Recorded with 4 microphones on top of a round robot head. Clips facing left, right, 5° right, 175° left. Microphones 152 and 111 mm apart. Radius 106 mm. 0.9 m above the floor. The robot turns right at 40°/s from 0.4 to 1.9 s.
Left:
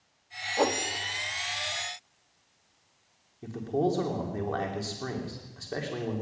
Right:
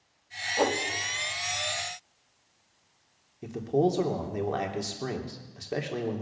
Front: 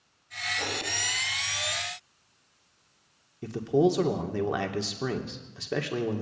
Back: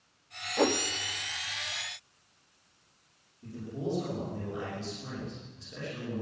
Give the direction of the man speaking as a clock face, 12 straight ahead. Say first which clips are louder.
Right 2 dB, front 13 dB; 1 o'clock.